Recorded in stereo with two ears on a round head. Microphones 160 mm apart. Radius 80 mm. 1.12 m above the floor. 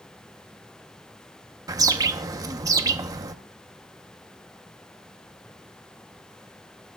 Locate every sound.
1.7 s a bird: 20° right (ahead or behind), 0.8 m